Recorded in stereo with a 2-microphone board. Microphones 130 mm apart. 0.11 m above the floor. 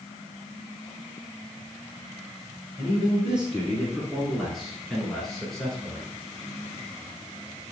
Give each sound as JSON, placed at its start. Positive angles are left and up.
{"t": 2.8, "sound": "a man speaking", "side_deg": -5, "distance_m": 1.8}